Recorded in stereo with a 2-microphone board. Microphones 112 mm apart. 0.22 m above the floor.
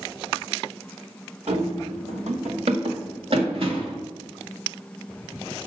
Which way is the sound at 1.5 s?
75° right (ahead or behind).